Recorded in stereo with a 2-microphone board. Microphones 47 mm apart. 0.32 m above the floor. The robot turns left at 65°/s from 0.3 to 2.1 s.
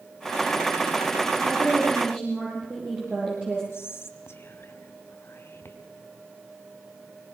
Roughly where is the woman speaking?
Right.